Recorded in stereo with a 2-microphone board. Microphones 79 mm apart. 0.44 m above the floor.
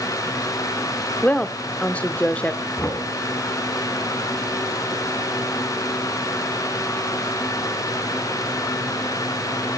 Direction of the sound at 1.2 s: 15° left (ahead or behind).